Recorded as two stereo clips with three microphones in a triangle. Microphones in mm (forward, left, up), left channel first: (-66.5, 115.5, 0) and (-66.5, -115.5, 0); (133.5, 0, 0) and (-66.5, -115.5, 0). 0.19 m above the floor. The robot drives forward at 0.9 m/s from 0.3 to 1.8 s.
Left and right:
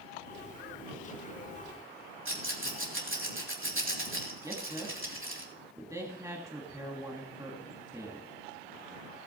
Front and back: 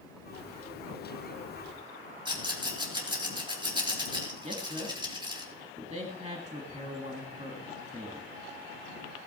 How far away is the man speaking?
About 1.7 m.